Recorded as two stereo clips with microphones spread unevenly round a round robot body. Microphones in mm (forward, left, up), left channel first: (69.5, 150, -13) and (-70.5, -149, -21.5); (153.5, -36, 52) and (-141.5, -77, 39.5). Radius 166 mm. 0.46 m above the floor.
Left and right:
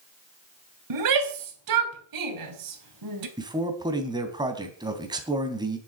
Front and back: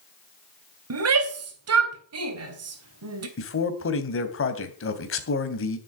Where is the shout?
140° right, 3 m.